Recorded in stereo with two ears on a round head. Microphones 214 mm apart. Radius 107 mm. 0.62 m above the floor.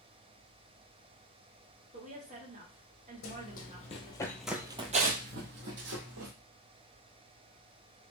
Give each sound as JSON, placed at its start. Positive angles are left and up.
{"t": 1.9, "sound": "a woman speaking", "side_deg": -30, "distance_m": 1.2}
{"t": 3.2, "sound": "running footsteps", "side_deg": 45, "distance_m": 1.1}